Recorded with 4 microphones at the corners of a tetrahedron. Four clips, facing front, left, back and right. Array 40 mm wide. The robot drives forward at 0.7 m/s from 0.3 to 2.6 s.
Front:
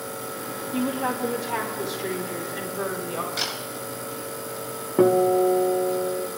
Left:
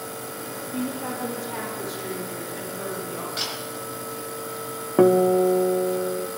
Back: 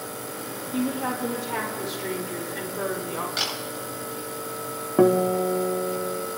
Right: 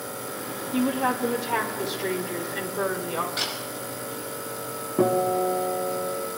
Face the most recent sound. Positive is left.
turn(degrees=100)